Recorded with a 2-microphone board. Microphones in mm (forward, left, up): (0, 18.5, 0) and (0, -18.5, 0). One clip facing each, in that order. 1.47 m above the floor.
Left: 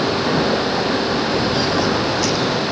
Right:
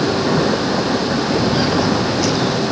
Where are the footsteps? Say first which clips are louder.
Right 2 dB; 10° right (ahead or behind); by 2.6 s 5° left (ahead or behind).